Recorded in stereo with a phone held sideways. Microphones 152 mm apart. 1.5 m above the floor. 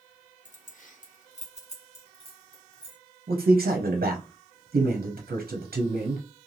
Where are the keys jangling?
55° left (ahead or behind), 0.6 m; by 3.0 s 30° left (ahead or behind), 1.4 m.